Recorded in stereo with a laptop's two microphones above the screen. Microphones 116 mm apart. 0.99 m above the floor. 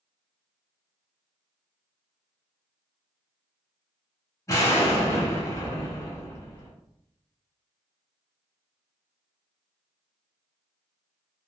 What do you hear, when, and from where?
4.5 s an explosion: 25° left (ahead or behind), 1.0 m